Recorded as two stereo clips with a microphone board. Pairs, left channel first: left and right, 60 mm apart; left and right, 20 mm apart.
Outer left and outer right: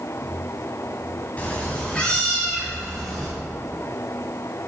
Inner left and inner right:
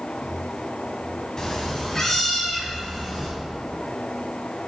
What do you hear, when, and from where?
1.4 s a cat meowing: 25° left (ahead or behind), 1.7 m; by 3.3 s 10° left (ahead or behind), 3 m